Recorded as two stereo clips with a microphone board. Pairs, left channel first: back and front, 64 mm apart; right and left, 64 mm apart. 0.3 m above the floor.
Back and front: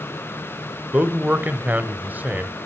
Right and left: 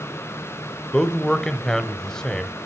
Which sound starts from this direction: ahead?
A man speaking, at 0.9 s.